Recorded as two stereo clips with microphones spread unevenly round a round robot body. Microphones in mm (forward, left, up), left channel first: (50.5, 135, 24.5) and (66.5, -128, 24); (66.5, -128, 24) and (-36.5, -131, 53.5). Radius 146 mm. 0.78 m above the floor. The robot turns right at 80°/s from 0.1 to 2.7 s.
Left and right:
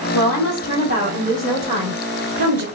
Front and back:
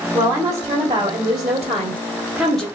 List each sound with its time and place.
0.1 s a woman speaking: 85° left, 1.5 m; by 2.6 s 75° right, 1.5 m